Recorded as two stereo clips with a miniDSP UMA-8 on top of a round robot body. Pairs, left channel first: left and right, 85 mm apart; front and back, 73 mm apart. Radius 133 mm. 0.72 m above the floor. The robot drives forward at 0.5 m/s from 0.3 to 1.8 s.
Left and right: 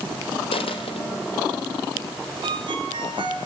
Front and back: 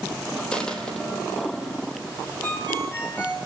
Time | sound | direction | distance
0.5 | a dropped coin | 80° left | 3 m
2.4 | a ringtone | 60° right | 9.5 m